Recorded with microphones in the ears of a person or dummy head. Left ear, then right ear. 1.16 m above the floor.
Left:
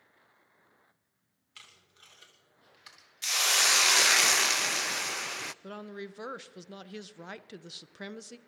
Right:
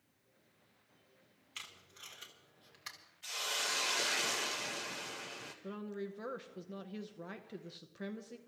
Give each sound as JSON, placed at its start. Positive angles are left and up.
{"t": 1.6, "sound": "tape being pulled", "side_deg": -15, "distance_m": 2.5}
{"t": 3.2, "sound": "a hiss", "side_deg": 60, "distance_m": 0.5}
{"t": 5.6, "sound": "a woman speaking", "side_deg": 35, "distance_m": 0.6}